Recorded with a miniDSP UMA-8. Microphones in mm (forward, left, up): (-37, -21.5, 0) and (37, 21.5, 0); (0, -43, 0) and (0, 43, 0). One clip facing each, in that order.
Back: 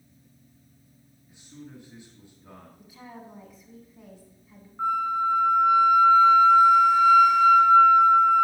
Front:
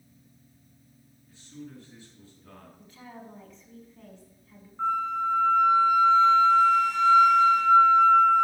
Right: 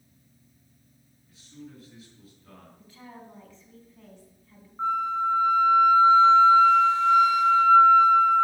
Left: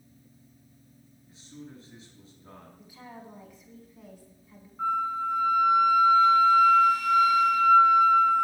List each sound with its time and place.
1.3 s a man speaking: 140° left, 2.5 m
2.8 s a woman speaking: 145° left, 1.3 m
4.8 s a flute: 80° right, 0.8 m